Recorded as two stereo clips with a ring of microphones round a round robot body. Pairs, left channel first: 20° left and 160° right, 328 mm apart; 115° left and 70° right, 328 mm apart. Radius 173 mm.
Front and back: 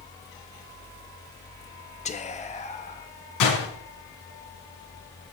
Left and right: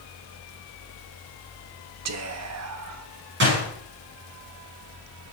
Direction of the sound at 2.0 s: 45° right.